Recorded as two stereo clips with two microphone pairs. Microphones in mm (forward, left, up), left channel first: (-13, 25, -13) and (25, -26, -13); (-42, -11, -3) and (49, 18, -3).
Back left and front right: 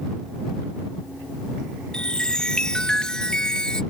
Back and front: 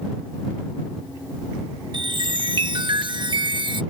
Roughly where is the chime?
Ahead left.